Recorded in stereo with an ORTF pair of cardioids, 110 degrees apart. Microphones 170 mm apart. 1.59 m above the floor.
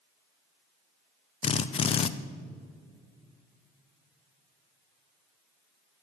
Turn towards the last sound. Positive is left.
turn(degrees=35)